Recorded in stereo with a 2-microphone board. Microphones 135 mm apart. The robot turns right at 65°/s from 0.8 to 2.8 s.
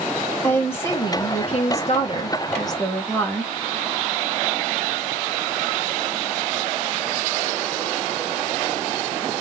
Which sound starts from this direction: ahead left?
A woman speaking, at 0.4 s.